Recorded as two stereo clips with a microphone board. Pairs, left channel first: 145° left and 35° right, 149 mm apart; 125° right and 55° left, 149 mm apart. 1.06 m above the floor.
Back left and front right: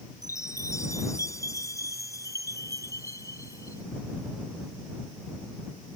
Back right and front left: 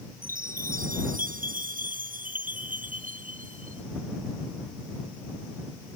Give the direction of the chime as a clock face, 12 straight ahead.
9 o'clock.